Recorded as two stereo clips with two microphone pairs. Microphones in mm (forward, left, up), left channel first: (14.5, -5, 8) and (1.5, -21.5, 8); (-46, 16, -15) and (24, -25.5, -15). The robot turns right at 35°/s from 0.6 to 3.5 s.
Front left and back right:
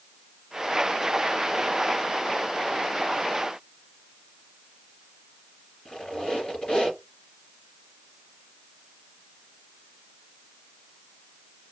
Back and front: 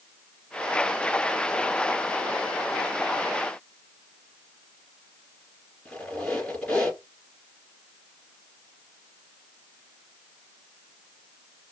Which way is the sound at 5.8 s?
75° left.